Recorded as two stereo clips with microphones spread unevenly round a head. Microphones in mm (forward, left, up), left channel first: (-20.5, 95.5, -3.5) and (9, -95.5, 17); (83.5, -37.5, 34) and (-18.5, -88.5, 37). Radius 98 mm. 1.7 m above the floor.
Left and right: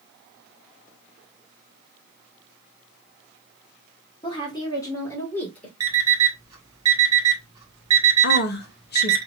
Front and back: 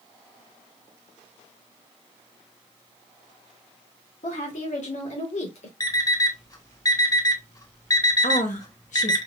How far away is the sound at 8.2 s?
About 1.2 m.